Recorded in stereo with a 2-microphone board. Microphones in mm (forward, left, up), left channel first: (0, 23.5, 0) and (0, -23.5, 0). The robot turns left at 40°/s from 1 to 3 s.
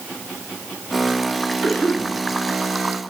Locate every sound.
1.6 s a cough: 20° left (ahead or behind), 4 m; by 2.1 s 40° left (ahead or behind), 4 m